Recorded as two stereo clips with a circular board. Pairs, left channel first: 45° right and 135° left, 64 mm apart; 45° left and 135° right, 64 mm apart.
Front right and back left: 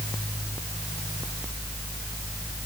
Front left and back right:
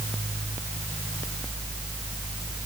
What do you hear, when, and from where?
Only background noise.